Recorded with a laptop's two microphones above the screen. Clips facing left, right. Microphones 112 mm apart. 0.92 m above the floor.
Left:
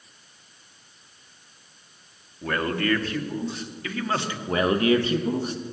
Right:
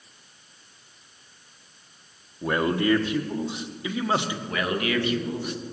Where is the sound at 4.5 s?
35° left (ahead or behind), 0.8 m.